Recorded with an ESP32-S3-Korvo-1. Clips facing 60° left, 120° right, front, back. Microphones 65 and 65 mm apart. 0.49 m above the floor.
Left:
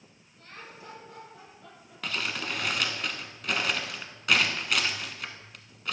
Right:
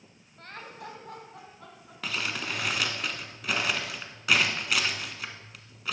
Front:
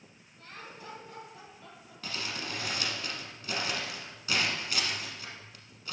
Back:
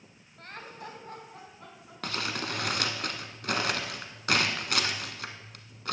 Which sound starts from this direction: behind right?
Laughter, at 0.4 s.